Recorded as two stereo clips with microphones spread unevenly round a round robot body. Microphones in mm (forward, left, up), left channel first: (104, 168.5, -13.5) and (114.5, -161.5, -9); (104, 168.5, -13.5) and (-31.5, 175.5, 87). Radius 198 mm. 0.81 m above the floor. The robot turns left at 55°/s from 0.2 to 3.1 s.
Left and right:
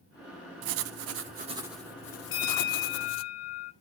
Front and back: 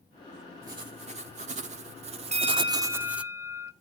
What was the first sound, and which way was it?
Writing, 115° right.